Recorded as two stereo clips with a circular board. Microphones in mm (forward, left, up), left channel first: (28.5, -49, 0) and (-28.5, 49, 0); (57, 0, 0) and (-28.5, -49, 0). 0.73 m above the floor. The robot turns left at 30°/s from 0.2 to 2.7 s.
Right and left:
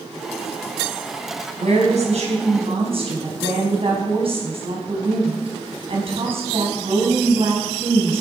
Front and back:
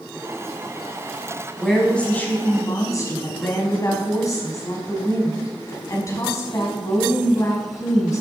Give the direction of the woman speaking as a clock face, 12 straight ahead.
8 o'clock.